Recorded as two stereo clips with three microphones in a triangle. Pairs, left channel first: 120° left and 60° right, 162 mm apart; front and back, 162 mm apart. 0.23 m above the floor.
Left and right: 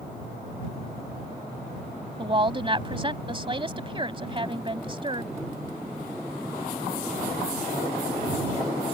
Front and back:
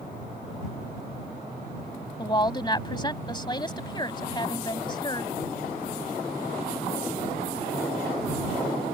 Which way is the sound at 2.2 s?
35° right.